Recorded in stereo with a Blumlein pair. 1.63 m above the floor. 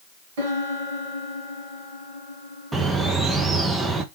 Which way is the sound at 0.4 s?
55° right.